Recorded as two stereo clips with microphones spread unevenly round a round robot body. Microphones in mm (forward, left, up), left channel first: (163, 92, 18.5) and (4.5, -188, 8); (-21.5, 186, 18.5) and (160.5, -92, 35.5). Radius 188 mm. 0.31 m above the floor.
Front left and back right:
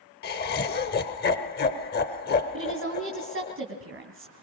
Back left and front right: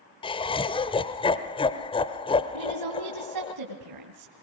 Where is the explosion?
No explosion in this recording.